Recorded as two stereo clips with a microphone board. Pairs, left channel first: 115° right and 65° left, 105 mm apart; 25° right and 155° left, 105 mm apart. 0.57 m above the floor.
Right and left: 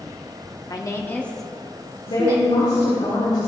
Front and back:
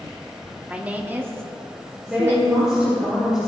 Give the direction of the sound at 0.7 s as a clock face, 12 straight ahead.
4 o'clock.